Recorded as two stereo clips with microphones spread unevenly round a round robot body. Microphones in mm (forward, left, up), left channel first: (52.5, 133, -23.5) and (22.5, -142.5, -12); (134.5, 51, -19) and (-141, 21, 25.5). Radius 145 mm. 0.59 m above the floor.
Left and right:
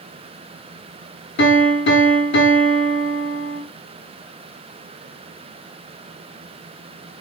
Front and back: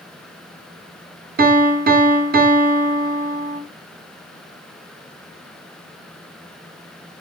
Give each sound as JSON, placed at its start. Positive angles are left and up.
{"t": 1.4, "sound": "a piano", "azimuth_deg": 125, "distance_m": 0.7}